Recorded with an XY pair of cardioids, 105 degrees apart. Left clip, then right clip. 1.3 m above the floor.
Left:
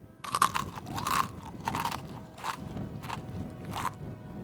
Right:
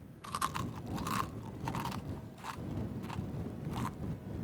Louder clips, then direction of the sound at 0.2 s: Left 9 dB; 55° left.